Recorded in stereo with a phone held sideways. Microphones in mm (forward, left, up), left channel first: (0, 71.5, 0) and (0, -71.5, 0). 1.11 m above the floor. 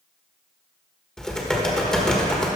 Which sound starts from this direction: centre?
Typing on a keyboard, at 1.2 s.